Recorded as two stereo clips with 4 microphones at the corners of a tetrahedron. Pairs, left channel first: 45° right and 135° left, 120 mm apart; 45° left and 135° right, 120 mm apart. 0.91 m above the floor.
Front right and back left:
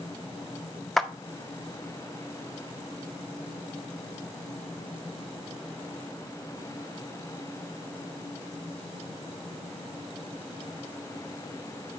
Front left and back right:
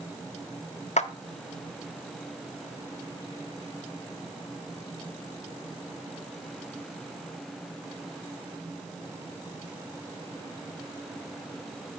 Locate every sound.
1.0 s a clap: 40° left, 0.7 m